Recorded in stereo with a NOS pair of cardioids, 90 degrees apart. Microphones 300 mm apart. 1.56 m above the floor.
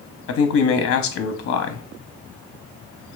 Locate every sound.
0.3 s a man speaking: 50° left, 0.8 m